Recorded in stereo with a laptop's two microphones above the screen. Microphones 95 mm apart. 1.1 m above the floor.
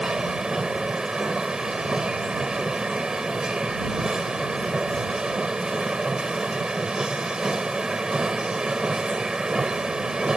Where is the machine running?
10° right (ahead or behind).